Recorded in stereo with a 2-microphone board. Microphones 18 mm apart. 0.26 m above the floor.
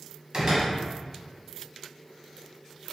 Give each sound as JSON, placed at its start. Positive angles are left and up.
{"t": 0.3, "sound": "a door slam", "side_deg": -50, "distance_m": 1.2}